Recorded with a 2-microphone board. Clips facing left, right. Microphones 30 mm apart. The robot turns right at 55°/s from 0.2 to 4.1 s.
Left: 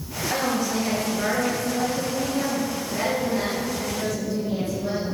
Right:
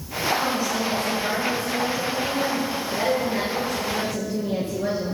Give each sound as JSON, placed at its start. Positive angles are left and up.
{"t": 0.3, "sound": "a woman speaking", "azimuth_deg": 25, "distance_m": 4.5}